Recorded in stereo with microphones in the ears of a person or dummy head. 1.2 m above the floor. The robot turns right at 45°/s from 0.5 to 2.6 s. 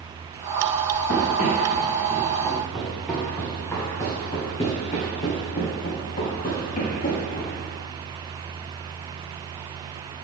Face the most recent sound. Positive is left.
turn(degrees=45)  # may be behind; listen again after turning